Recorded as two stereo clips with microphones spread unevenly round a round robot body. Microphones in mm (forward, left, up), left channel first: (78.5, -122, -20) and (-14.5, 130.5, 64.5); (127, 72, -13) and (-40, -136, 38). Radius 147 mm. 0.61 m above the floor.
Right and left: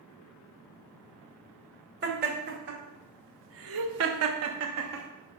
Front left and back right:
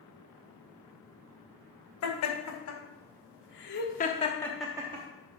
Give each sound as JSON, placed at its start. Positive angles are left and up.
{"t": 2.0, "sound": "laughter", "azimuth_deg": 50, "distance_m": 2.0}